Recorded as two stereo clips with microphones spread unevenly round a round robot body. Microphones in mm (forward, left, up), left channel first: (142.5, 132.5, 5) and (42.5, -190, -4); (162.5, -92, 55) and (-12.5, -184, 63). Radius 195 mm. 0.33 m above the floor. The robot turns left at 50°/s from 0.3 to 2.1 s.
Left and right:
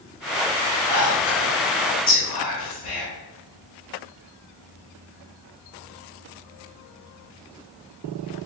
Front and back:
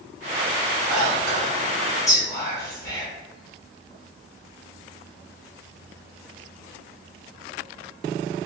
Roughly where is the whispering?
Behind left.